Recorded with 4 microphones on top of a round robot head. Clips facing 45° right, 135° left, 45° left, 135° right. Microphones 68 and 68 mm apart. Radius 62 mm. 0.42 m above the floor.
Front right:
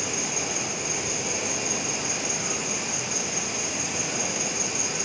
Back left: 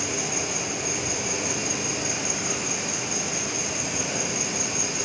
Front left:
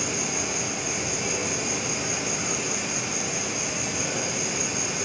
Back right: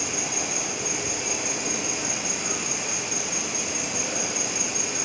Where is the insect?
100° left, 1.5 m.